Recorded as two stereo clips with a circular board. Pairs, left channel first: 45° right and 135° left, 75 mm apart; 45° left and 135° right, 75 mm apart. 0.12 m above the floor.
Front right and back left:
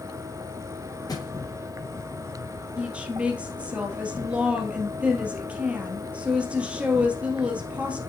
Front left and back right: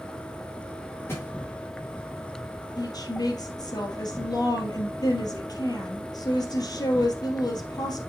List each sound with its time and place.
0.0 s an insect: 115° left, 1.0 m
1.1 s a thud: 10° right, 4 m
2.8 s a woman speaking: 65° left, 2.5 m